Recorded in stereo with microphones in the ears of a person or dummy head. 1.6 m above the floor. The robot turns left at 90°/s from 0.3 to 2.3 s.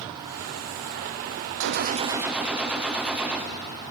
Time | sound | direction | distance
1.6 | a gunshot | 115° right | 0.6 m